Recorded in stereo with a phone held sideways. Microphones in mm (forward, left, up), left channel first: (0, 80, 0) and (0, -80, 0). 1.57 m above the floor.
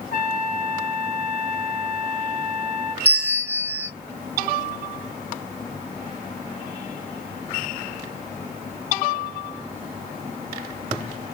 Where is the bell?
10° right (ahead or behind), 1.4 m.